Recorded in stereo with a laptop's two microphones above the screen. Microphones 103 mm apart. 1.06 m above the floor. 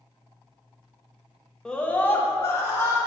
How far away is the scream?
About 0.9 m.